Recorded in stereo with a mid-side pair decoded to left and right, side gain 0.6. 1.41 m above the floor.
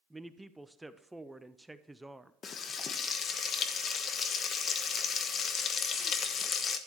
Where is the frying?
40° left, 1.2 m.